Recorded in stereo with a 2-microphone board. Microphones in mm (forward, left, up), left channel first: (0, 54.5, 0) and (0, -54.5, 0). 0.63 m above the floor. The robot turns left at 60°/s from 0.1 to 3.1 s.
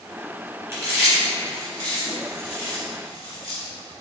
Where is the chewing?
30° right (ahead or behind), 1.8 m; by 3.6 s 60° left (ahead or behind), 1.8 m.